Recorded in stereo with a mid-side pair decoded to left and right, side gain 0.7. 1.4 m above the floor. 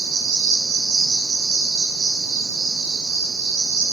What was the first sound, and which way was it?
An insect, 70° right.